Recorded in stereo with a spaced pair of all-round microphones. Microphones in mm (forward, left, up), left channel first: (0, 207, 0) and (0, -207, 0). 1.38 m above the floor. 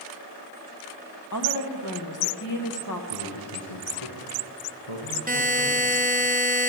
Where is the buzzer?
20° right (ahead or behind), 0.9 m.